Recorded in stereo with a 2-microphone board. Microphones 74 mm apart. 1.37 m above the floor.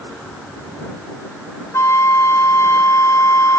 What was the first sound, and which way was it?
A flute, 40° left (ahead or behind).